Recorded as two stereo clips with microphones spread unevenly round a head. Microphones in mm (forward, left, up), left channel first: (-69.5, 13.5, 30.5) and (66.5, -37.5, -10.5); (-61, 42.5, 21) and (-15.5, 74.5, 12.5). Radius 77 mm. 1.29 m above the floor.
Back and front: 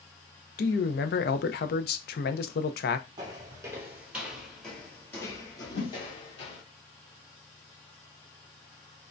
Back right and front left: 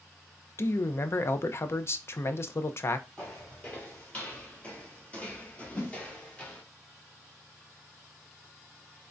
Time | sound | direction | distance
0.6 | a man speaking | 170° left | 0.6 m
3.2 | footsteps | 90° right | 1.6 m
5.7 | a whoosh | 160° left | 2.5 m